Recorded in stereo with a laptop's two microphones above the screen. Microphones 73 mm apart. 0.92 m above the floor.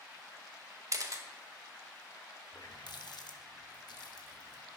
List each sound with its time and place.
0.9 s a camera shutter: 45° right (ahead or behind), 0.9 m
2.5 s a running tap: 70° left (ahead or behind), 0.7 m